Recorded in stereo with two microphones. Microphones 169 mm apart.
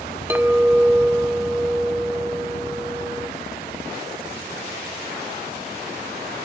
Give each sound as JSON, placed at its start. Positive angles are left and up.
{"t": 0.3, "sound": "a clink", "side_deg": -10, "distance_m": 0.7}